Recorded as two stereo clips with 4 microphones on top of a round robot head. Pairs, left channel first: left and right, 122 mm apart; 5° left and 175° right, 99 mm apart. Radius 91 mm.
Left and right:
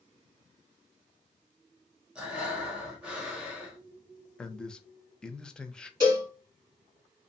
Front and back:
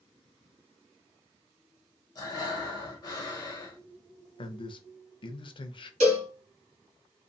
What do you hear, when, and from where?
2.1 s breathing: 15° right, 1.0 m
4.4 s a man speaking: 10° left, 0.6 m
6.0 s a cowbell: 155° right, 1.5 m